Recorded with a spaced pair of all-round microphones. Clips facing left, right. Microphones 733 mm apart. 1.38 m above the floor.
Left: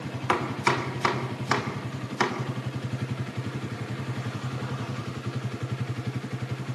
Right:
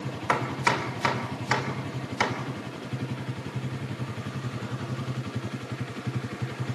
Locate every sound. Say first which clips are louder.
0.3 s chopping: left 2 dB; 20° right (ahead or behind), 3 m